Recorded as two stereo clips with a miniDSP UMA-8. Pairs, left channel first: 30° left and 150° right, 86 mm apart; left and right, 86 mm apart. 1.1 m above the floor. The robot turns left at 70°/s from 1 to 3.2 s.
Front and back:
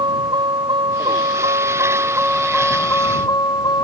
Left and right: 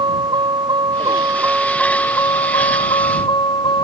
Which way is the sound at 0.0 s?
120° right.